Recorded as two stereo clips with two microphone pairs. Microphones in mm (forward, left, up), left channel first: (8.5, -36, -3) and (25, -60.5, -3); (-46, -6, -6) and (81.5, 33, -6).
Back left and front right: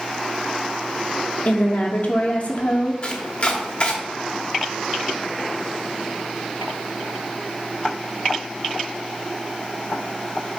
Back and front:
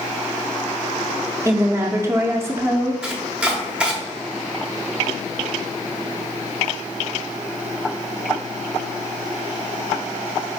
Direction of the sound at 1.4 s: 85° left.